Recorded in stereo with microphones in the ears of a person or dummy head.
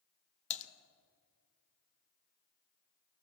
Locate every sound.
0.5 s typing on a keyboard: 35° left (ahead or behind), 1.3 m